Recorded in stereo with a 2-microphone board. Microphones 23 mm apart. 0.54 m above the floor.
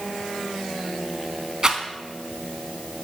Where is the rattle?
35° right (ahead or behind), 0.9 m.